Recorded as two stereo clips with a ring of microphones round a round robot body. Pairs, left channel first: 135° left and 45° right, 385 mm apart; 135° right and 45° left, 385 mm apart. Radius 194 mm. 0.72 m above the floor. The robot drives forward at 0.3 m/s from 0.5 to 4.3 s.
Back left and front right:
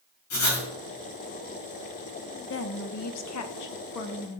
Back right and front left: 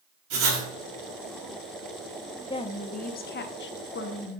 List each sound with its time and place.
0.3 s writing: 80° left, 4 m
2.5 s a woman speaking: 155° left, 0.6 m; by 4.4 s 170° left, 1.0 m